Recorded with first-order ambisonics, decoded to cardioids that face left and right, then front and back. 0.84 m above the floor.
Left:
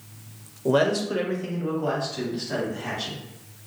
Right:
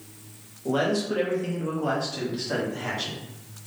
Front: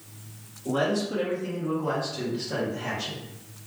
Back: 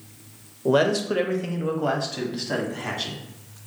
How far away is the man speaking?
About 0.5 m.